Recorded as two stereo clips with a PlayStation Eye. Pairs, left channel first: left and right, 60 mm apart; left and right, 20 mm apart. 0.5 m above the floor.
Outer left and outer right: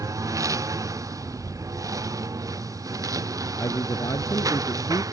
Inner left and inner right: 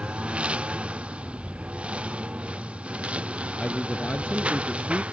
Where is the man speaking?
80° left.